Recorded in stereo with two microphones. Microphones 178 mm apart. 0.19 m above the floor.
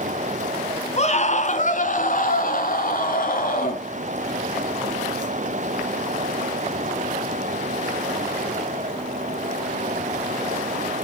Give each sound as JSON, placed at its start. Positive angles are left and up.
{"t": 1.0, "sound": "a scream", "side_deg": 45, "distance_m": 2.0}